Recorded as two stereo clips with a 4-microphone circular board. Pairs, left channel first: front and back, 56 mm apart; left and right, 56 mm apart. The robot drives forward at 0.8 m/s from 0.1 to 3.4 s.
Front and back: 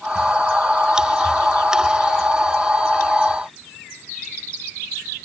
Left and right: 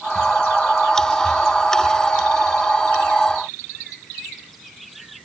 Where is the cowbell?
No cowbell in this recording.